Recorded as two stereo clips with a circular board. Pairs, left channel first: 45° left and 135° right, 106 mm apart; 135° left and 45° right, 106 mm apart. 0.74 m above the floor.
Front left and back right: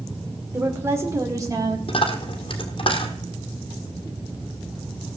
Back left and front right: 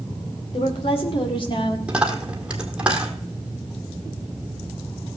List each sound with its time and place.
0.5 s a woman speaking: 160° left, 2.0 m; by 1.8 s 175° left, 1.6 m
1.9 s a dropped coin: 35° left, 1.4 m